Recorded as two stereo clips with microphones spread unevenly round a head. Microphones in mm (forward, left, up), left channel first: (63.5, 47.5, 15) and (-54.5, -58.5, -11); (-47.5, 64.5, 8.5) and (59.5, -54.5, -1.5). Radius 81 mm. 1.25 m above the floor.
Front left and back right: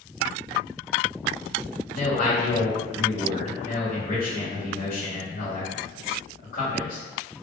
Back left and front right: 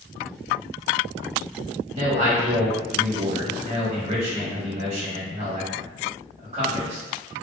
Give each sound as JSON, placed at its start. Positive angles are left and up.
{"t": 1.9, "sound": "a man speaking", "azimuth_deg": 0, "distance_m": 1.2}